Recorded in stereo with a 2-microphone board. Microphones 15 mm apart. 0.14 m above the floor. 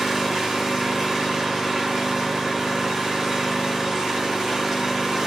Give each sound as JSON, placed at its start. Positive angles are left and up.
{"t": 0.0, "sound": "an engine running", "side_deg": -80, "distance_m": 1.4}